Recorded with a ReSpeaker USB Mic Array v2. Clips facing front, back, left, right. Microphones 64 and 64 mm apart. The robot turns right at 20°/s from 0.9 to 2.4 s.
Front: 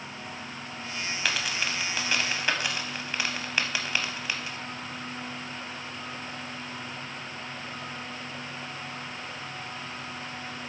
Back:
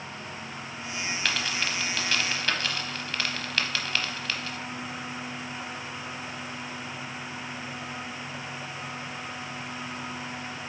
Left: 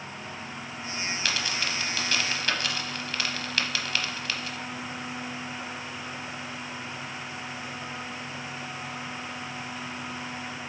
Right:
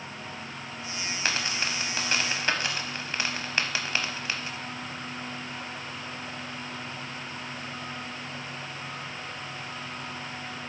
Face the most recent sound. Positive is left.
turn(degrees=-60)